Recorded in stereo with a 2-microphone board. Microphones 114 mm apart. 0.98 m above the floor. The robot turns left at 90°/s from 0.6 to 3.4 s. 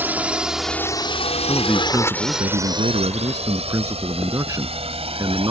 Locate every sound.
0.0 s a drone: 20° right (ahead or behind); by 5.5 s 60° right (ahead or behind)
1.5 s a man speaking: 25° left; by 5.5 s 150° right